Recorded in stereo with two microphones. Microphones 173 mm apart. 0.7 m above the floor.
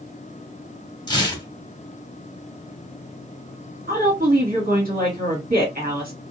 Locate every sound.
1.1 s tearing paper: 25° left (ahead or behind), 0.9 m
3.9 s a woman speaking: 55° right (ahead or behind), 1.8 m